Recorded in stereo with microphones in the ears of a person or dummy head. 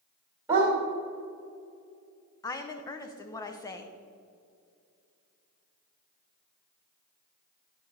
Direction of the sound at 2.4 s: 20° left (ahead or behind).